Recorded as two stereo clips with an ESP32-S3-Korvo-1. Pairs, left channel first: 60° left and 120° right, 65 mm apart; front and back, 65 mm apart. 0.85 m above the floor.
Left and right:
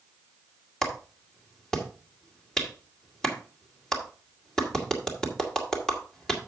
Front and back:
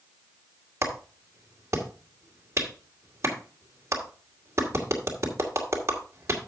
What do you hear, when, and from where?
0.8 s a clap: 140° left, 2 m